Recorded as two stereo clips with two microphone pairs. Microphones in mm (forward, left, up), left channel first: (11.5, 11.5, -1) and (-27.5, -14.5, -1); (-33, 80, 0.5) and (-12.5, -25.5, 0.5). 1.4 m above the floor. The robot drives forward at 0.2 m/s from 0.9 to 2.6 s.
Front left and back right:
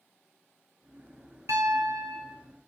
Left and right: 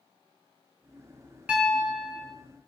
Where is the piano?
165° right, 0.6 m; by 2.3 s 170° right, 0.8 m.